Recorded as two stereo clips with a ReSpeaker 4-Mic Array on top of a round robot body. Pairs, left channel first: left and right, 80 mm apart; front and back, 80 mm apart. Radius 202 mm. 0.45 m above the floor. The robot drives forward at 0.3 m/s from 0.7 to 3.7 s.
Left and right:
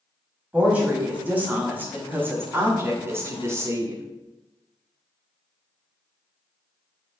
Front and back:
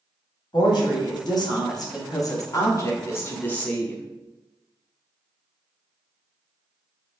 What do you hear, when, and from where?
0.5 s a woman speaking: 20° right, 1.3 m; by 4.0 s 65° right, 0.8 m